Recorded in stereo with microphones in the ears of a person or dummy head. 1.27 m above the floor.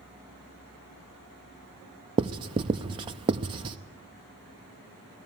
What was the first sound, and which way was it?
Writing, 25° right (ahead or behind).